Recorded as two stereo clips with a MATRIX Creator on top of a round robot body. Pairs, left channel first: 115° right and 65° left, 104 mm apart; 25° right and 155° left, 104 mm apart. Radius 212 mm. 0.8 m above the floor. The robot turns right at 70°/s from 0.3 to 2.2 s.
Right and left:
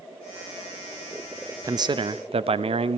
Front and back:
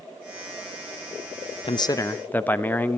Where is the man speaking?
10° left, 1.1 m; by 3.0 s 50° left, 1.1 m.